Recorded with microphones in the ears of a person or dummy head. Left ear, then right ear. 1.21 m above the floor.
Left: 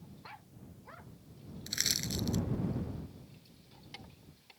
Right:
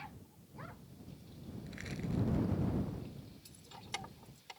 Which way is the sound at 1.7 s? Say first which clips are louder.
Left 12 dB; 75° left (ahead or behind).